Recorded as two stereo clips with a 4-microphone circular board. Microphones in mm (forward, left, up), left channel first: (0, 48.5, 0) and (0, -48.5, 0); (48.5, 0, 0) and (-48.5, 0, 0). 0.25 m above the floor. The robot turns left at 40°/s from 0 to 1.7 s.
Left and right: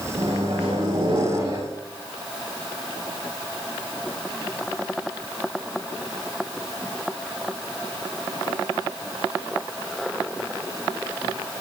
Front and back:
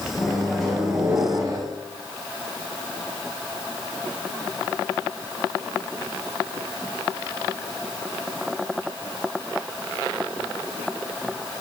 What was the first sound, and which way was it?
A microwave, 75° right.